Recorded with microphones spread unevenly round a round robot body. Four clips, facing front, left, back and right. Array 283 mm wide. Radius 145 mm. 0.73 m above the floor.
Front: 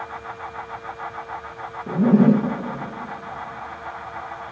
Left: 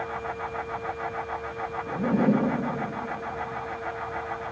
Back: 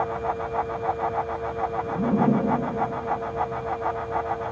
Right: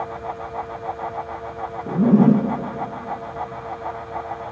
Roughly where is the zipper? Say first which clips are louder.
Right 9 dB, front 8 dB; right.